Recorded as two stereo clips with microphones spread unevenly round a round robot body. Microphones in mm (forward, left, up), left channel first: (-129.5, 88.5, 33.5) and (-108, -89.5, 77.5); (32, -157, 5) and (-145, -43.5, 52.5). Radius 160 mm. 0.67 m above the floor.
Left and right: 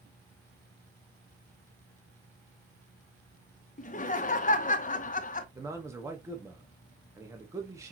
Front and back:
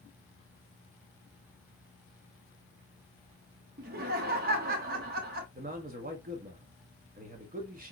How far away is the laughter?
About 0.9 m.